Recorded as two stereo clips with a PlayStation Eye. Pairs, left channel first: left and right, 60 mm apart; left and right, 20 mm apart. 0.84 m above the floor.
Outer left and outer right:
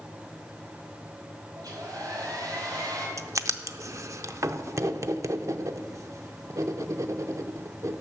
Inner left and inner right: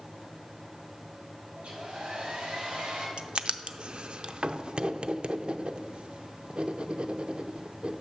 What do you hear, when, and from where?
1.6 s a hair dryer: 70° right (ahead or behind), 3 m
3.2 s writing: 55° right (ahead or behind), 0.6 m